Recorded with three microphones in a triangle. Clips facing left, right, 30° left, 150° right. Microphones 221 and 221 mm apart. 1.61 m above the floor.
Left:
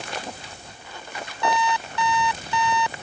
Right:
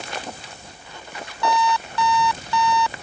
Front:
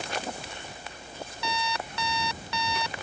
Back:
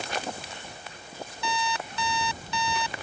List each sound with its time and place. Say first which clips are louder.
1.4 s an alarm clock: right 2 dB, back 2 dB; 20° left